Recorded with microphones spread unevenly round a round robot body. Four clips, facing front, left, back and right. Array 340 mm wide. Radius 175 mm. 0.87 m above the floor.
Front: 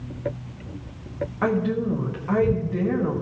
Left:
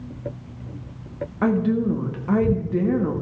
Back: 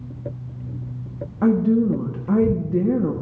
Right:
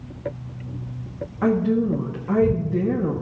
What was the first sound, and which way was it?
A woman speaking, 155° left.